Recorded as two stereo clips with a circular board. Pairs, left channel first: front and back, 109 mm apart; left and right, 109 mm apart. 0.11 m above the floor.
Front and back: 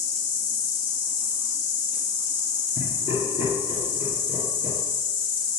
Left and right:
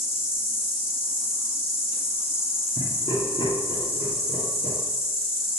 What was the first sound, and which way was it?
An insect, 110° left.